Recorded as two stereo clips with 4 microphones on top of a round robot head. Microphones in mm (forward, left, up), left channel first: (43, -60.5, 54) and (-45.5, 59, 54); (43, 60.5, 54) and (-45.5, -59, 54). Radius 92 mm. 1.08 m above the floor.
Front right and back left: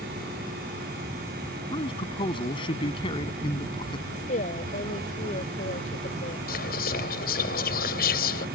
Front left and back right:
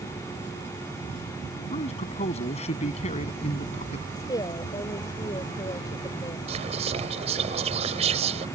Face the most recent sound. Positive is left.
turn(degrees=-75)